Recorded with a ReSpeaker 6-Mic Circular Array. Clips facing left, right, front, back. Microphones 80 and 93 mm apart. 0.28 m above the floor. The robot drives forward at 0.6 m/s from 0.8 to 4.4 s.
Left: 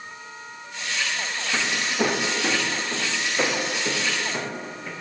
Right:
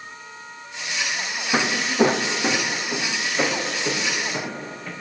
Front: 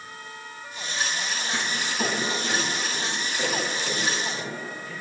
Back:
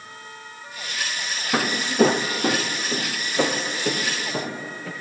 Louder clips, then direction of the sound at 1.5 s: Right 6 dB, back 12 dB; 150° right.